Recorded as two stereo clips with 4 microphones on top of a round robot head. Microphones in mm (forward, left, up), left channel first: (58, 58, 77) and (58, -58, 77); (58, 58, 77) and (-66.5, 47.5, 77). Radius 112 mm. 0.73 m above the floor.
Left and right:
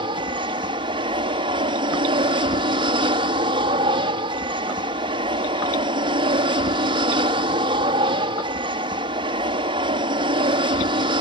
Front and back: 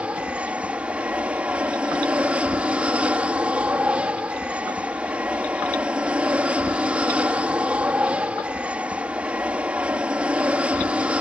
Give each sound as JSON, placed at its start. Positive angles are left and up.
{"t": 0.0, "sound": "an aircraft", "azimuth_deg": -100}